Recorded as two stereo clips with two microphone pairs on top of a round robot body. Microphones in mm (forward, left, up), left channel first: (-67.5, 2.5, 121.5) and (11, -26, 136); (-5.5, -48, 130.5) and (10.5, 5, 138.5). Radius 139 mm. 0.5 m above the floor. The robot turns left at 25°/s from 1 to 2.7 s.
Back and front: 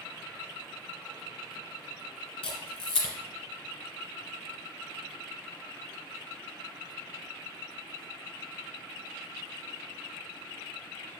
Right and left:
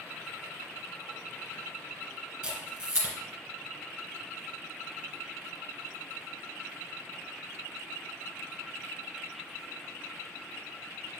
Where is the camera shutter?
145° left, 1.4 m; by 3.1 s 135° left, 1.4 m.